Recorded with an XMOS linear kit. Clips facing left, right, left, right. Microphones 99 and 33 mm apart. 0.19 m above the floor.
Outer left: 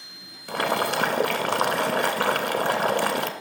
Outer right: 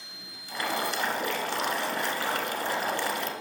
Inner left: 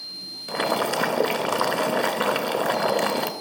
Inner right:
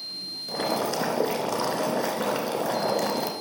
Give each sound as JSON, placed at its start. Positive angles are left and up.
{"t": 0.5, "sound": "boiling", "side_deg": 65, "distance_m": 0.6}